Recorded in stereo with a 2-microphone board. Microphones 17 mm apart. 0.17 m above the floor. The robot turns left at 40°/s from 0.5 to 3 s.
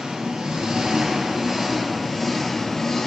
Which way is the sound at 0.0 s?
110° right.